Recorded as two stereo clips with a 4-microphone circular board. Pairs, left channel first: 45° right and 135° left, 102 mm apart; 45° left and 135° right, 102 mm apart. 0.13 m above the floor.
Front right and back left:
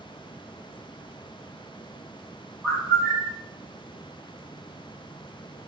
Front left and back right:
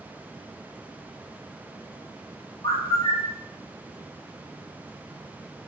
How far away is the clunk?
I don't hear a clunk.